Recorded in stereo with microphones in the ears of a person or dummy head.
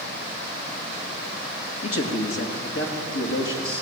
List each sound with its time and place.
1.8 s a man speaking: 80° left, 2.5 m; by 3.8 s 75° left (ahead or behind), 3.5 m